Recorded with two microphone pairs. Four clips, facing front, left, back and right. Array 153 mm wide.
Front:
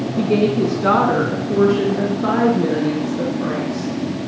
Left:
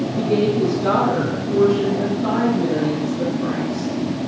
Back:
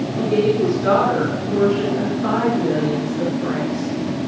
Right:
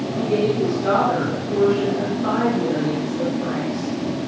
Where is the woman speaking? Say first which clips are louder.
Left 1 dB, front 1 dB; 20° left, 2.5 m; by 3.9 s straight ahead, 4.5 m.